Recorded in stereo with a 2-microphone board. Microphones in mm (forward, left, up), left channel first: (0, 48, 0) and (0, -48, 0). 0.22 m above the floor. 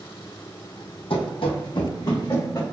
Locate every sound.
1.1 s running footsteps: 75° left (ahead or behind), 0.5 m; by 2.6 s 40° left (ahead or behind), 1.2 m